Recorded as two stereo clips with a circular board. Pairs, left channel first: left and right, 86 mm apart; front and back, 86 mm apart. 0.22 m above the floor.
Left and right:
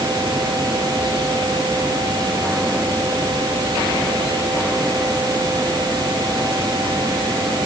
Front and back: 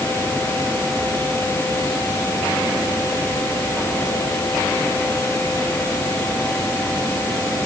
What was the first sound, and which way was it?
Only background noise.